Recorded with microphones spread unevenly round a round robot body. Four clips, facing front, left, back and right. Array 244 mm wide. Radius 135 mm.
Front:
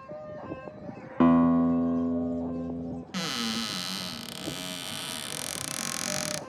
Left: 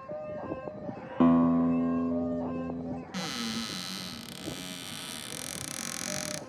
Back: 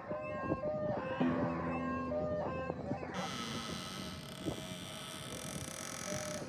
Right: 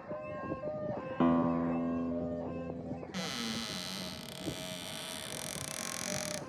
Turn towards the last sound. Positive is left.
turn(degrees=20)